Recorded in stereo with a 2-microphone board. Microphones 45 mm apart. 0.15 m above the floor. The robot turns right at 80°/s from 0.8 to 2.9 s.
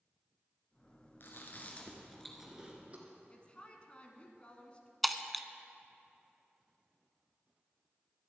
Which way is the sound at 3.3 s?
25° left (ahead or behind).